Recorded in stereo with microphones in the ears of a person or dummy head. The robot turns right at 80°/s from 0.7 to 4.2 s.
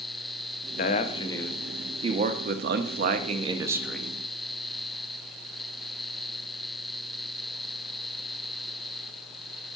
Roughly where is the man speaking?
Left.